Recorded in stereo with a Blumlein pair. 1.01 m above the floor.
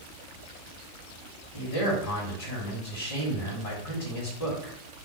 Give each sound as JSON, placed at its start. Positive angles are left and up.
{"t": 1.5, "sound": "a man speaking", "azimuth_deg": 50, "distance_m": 1.4}